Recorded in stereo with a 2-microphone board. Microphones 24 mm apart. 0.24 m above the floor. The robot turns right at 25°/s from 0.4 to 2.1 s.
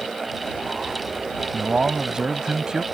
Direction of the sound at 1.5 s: 35° right (ahead or behind).